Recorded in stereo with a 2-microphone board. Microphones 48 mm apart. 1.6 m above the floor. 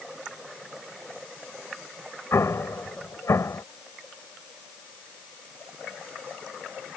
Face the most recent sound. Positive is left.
turn(degrees=85)